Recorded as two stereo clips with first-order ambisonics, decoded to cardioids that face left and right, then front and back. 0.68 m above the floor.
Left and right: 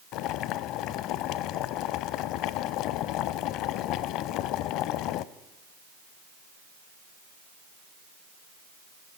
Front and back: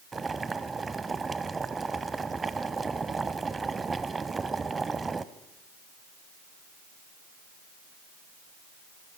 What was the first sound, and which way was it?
Boiling, 105° left.